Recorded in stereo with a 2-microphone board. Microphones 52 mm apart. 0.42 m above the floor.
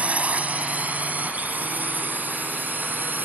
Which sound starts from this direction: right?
A drone, at 0.0 s.